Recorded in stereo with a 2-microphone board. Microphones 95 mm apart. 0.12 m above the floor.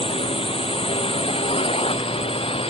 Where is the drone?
75° left (ahead or behind); by 2.7 s 80° left.